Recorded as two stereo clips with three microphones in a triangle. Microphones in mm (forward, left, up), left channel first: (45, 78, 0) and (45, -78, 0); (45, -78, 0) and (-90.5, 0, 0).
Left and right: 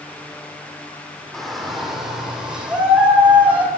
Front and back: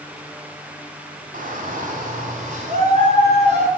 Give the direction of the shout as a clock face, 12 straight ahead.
6 o'clock.